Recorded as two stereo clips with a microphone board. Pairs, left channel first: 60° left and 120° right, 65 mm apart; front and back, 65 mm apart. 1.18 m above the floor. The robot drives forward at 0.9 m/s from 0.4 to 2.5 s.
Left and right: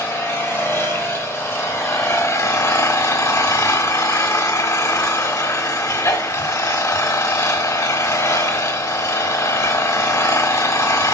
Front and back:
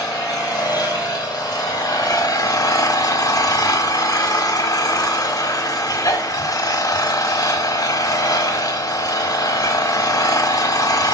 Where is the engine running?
10° left, 3 m; by 11.2 s 25° left, 1.3 m.